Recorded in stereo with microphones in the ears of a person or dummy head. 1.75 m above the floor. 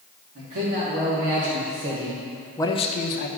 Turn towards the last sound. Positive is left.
turn(degrees=55)  # may be behind; listen again after turning